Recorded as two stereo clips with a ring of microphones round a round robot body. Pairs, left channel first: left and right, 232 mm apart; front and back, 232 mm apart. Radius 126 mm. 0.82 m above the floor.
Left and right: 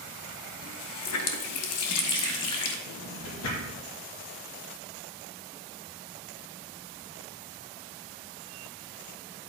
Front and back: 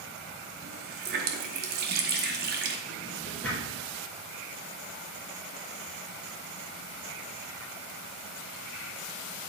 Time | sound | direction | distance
0.6 | a running tap | 125° left | 0.8 m
2.9 | a drawer | 85° left | 3.5 m